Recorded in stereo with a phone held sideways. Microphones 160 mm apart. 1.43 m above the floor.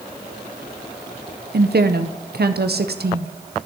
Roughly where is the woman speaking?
Right.